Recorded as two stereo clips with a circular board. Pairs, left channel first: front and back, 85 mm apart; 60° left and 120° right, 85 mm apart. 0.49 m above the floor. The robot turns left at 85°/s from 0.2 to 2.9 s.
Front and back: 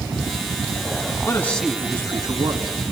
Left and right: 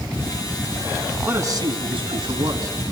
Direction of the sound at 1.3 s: 55° right.